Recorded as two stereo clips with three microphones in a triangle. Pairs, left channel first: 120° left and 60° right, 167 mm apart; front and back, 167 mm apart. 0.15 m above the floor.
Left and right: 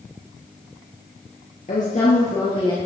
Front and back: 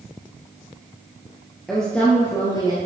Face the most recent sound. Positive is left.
turn(degrees=60)